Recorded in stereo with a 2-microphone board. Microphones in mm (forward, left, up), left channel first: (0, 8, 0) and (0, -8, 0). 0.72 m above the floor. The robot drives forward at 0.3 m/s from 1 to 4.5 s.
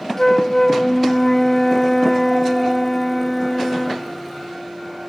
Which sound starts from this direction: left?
A flute, at 0.2 s.